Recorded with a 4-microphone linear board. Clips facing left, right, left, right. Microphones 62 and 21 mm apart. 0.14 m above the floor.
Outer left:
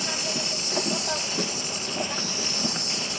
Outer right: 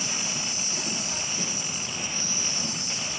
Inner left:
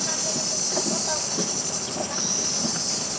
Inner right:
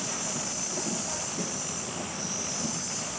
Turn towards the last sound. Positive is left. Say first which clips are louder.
# outer left 3 dB, inner left 7 dB
turn(degrees=70)  # may be behind; listen again after turning